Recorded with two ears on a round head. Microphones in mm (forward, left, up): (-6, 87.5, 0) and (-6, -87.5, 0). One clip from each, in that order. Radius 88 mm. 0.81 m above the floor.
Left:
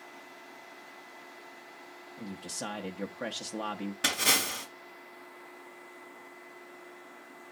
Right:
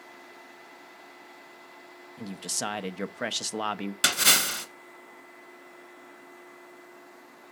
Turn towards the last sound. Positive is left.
turn(degrees=-65)  # may be behind; listen again after turning